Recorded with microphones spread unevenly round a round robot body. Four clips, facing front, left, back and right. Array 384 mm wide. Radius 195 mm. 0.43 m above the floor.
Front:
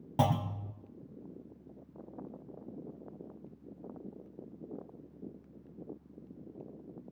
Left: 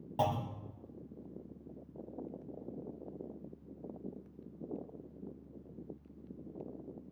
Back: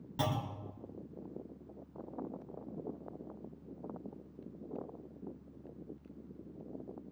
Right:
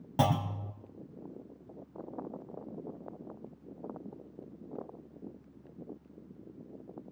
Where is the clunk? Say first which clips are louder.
Right 4 dB, front 6 dB; 40° right, 1.4 m.